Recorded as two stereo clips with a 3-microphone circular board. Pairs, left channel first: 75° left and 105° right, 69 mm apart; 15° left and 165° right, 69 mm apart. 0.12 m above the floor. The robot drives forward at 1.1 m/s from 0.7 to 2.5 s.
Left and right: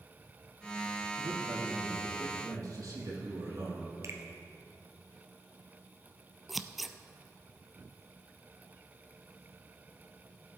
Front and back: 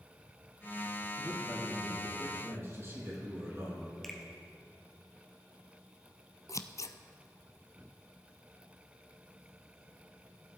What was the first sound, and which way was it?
A man speaking, 100° right.